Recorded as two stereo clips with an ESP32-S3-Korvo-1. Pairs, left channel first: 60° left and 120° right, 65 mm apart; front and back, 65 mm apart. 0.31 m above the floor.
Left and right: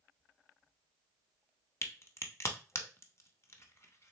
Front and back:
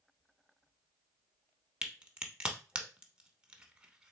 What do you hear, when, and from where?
1.8 s a crack: 105° left, 0.7 m